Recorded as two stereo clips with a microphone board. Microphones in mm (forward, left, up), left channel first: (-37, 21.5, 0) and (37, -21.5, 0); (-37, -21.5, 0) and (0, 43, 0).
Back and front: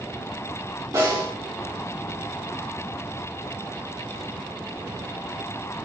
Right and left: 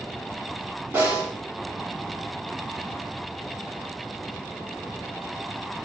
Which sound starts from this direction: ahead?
A snare drum, at 0.9 s.